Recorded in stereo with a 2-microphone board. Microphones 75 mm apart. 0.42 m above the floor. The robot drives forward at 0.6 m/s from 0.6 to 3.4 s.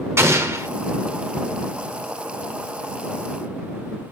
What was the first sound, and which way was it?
An explosion, 40° right (ahead or behind).